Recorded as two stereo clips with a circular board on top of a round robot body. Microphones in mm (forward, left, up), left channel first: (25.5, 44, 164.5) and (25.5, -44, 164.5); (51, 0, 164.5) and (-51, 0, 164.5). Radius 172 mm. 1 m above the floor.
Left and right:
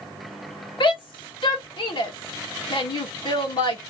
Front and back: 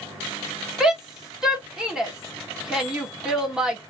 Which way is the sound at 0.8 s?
100° left.